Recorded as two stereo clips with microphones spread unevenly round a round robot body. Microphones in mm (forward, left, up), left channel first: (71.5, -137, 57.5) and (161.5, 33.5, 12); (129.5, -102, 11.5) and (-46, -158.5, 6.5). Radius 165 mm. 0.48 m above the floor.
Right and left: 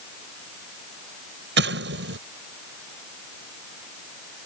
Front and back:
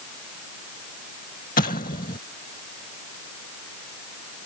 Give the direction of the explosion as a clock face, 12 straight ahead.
9 o'clock.